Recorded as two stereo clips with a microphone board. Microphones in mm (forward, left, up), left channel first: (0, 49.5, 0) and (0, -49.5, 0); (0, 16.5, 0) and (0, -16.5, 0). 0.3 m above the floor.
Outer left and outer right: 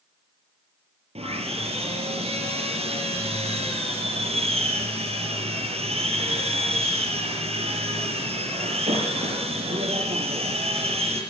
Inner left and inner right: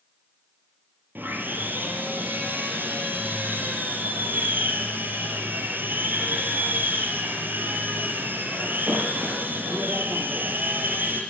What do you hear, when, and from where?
1.1 s sawing: 80° right, 5.5 m